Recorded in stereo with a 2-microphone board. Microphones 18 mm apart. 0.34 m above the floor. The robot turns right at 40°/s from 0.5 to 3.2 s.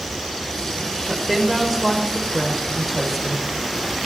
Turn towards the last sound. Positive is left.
turn(degrees=-5)  # may be behind; listen again after turning